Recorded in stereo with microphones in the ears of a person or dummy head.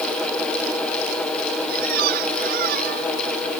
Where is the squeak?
50° right (ahead or behind).